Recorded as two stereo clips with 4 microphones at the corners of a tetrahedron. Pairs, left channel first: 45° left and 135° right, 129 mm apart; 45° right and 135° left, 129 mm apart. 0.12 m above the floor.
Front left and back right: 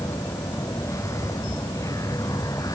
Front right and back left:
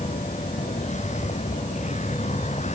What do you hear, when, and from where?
0.0 s a vehicle: 25° right; by 2.7 s 20° right